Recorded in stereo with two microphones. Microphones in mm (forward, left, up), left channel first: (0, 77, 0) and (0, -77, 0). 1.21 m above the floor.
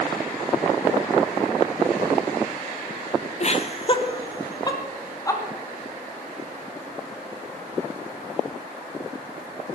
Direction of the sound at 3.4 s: 45° left (ahead or behind).